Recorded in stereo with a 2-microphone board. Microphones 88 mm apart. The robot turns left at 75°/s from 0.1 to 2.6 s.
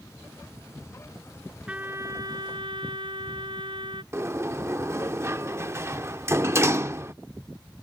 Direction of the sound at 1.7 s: 10° right.